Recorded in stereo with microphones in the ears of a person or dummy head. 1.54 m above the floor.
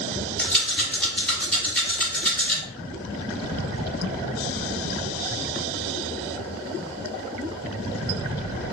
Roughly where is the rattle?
Centre.